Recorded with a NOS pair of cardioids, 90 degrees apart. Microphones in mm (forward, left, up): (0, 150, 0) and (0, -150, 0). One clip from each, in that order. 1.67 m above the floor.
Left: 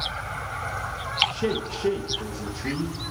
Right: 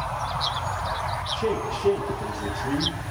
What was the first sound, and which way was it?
A man speaking, 25° left.